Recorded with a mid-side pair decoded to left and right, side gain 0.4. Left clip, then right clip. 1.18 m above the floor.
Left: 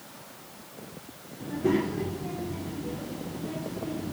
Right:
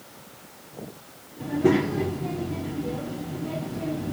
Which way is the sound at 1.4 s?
55° right.